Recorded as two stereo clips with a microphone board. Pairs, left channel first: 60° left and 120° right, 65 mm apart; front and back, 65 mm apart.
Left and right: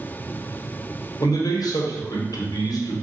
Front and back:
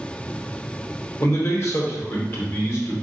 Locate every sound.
1.2 s a man speaking: 50° left, 1.1 m